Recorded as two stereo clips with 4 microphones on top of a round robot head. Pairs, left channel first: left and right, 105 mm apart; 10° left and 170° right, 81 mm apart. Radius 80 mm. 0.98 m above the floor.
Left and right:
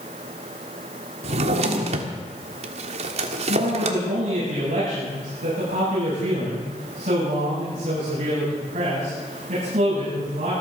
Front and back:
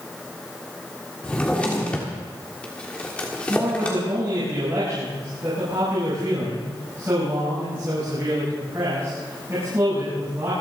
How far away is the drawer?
About 1.5 m.